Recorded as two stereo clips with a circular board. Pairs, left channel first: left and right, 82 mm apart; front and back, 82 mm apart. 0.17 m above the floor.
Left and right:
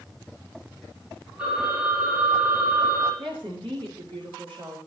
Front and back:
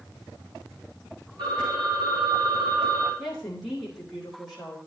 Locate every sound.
1.4 s a phone ringing: 165° right, 7 m
3.2 s a woman speaking: 90° right, 5.5 m